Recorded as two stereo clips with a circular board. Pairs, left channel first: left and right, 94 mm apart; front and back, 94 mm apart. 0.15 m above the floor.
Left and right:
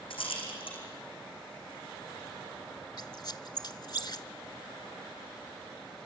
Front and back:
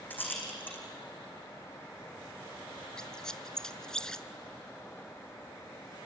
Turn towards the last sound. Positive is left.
turn(degrees=80)